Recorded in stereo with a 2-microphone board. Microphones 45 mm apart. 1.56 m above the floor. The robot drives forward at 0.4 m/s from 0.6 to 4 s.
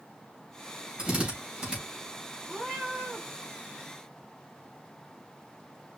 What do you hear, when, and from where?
1.0 s a drill: 30° right (ahead or behind), 3 m; by 1.8 s 25° right (ahead or behind), 3 m
2.5 s a cat meowing: 30° right (ahead or behind), 2.5 m; by 3.3 s 25° right (ahead or behind), 3 m